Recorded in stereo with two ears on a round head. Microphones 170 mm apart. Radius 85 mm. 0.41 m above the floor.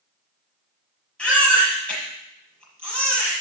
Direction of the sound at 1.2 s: 5° left (ahead or behind).